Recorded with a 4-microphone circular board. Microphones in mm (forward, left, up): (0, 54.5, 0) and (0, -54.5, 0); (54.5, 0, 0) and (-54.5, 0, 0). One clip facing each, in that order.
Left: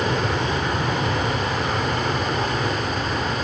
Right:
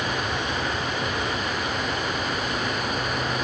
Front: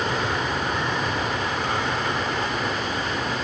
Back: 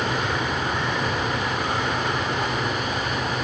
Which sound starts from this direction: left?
An aircraft, at 0.0 s.